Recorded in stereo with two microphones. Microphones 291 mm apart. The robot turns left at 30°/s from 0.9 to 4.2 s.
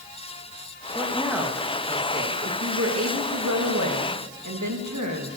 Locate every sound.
0.9 s a woman speaking: 5° left, 2.5 m; by 5.4 s 95° right, 2.5 m